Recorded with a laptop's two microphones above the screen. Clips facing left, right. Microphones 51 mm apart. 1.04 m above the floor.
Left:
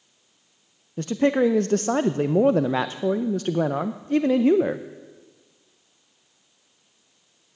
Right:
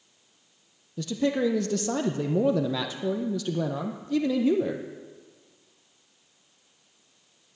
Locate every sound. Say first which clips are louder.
1.0 s a man speaking: left 5 dB; 45° left (ahead or behind), 0.5 m